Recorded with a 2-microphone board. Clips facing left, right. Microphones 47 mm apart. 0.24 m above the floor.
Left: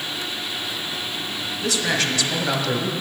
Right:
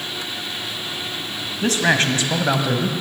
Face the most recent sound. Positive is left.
turn(degrees=-5)  # may be behind; listen again after turning